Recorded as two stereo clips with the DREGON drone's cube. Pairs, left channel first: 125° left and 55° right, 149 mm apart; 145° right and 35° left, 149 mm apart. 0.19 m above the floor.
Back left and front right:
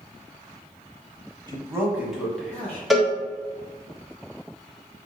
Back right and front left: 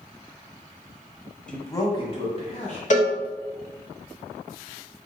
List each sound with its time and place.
1.5 s a man speaking: 70° right, 1.1 m; by 2.8 s 160° right, 1.8 m
2.9 s a cowbell: 145° right, 0.8 m